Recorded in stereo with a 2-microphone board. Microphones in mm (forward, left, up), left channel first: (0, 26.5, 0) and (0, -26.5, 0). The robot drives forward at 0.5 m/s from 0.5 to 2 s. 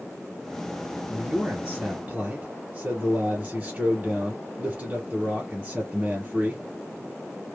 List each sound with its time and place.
1.1 s a man speaking: 25° right (ahead or behind), 2 m; by 6.6 s 30° right (ahead or behind), 1.9 m